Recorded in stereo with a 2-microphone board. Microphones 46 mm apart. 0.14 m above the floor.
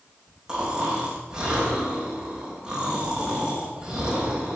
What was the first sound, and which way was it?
Snoring, 15° right (ahead or behind).